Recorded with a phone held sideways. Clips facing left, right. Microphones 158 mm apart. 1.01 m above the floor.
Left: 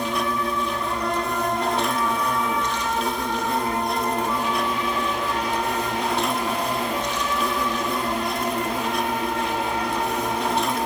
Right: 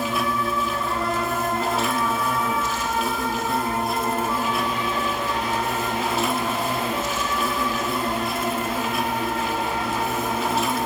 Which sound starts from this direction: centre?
An insect, at 0.0 s.